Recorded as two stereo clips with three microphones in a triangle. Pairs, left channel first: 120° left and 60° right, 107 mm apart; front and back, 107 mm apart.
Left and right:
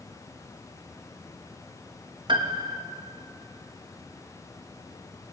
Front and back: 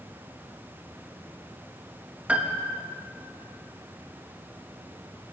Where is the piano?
100° right, 2.5 m.